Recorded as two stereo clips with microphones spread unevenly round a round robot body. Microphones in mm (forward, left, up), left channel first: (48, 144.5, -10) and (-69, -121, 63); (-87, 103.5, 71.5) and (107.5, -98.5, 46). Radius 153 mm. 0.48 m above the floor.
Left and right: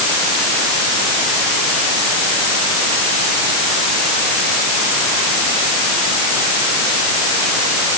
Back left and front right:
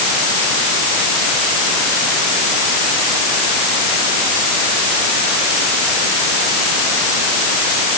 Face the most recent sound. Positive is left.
No sound to turn to.